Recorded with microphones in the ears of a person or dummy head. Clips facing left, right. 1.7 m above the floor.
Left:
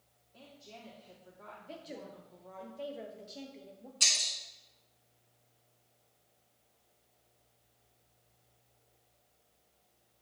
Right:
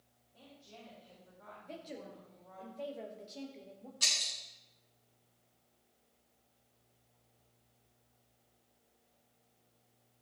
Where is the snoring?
No snoring in this recording.